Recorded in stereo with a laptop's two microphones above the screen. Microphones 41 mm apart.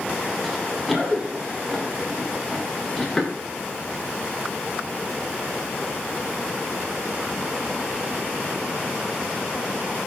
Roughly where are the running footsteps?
Centre.